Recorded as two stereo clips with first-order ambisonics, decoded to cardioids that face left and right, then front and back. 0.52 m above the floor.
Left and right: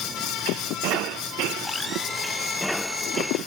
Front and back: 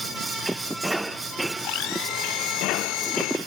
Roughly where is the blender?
Ahead.